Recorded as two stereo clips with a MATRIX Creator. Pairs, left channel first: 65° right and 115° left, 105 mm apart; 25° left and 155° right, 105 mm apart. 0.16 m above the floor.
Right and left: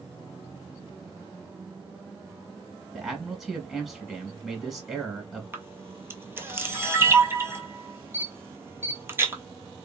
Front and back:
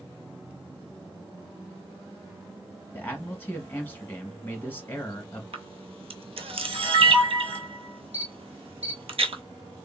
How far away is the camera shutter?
About 0.6 m.